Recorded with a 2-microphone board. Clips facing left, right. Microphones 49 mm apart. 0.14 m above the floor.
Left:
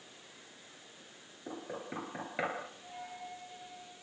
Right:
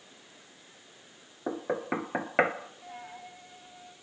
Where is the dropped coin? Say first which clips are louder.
Right 1 dB; 30° right (ahead or behind), 5 m.